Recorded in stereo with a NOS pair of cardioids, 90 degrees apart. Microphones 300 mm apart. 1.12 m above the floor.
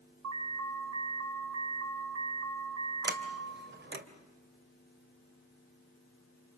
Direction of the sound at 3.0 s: 35° right.